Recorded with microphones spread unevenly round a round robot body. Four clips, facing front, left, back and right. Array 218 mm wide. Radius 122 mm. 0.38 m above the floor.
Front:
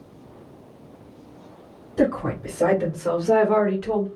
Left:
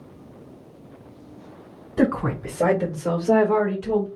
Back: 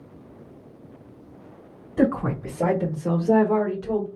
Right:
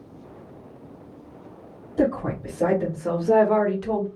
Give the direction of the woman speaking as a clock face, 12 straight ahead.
8 o'clock.